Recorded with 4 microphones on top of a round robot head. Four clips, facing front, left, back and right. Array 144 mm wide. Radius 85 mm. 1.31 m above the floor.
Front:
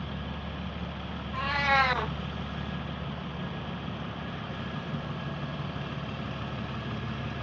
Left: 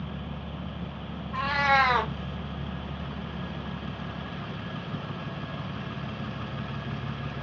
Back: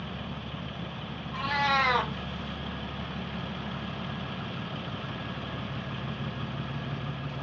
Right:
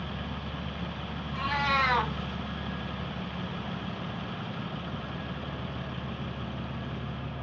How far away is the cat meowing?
About 0.6 m.